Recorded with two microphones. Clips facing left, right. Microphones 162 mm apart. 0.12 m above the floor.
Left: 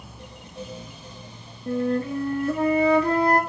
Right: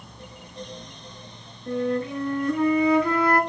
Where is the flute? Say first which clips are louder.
Left 1 dB; 35° left (ahead or behind), 0.7 m.